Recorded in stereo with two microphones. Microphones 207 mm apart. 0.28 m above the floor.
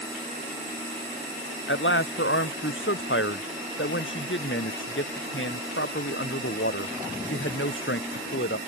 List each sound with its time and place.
1.7 s a man speaking: 70° left (ahead or behind)